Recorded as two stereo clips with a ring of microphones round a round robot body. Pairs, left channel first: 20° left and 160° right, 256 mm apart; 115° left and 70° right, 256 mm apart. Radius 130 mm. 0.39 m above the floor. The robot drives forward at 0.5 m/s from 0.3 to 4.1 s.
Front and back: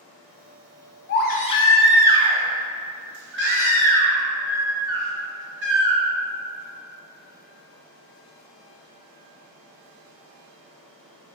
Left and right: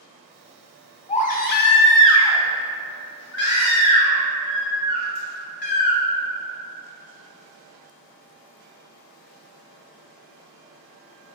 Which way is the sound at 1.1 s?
55° left.